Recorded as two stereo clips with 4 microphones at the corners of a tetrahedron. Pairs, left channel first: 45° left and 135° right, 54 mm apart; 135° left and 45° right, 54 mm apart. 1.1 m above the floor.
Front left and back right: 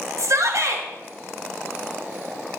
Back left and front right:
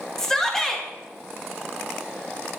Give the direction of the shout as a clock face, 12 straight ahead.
5 o'clock.